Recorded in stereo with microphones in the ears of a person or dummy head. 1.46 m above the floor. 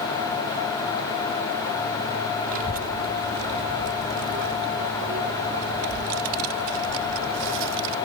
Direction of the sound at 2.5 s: 40° right (ahead or behind).